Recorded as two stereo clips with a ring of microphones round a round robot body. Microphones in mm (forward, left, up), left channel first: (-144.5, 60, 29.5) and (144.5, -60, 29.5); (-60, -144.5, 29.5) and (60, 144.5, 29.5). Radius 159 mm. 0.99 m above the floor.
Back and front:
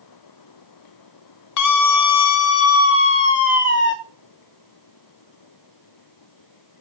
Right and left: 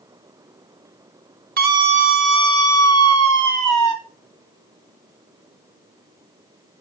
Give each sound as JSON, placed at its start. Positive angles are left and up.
{"t": 1.6, "sound": "a scream", "azimuth_deg": 130, "distance_m": 1.6}